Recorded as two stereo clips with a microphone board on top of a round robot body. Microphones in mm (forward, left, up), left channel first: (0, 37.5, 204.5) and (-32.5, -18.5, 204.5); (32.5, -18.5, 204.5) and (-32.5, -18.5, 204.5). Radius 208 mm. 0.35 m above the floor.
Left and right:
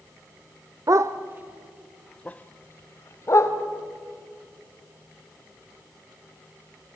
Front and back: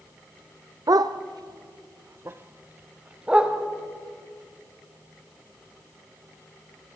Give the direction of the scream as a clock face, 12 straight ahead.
No scream in this recording.